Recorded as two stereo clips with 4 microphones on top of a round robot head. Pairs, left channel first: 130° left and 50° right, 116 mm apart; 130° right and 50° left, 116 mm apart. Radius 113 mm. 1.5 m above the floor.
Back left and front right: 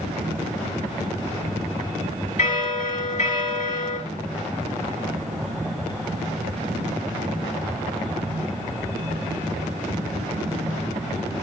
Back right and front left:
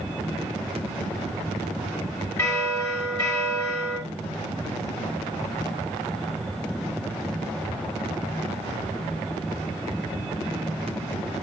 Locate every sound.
2.4 s a bell: 160° left, 3 m